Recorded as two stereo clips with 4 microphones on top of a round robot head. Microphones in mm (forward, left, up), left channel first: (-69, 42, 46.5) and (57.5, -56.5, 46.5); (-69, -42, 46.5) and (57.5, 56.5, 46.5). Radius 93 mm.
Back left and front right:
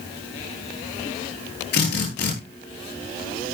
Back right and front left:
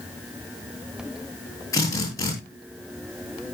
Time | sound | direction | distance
1.7 | a drill | 150° left | 10 m